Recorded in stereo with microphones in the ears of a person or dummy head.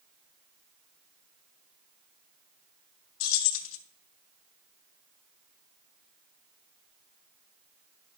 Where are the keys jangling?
80° left, 0.8 m.